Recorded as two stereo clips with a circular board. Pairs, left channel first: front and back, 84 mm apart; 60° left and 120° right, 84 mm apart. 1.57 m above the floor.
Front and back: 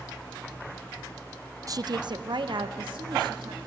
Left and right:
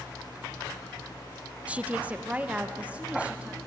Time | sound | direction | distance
1.7 | a woman speaking | 175° left | 0.5 m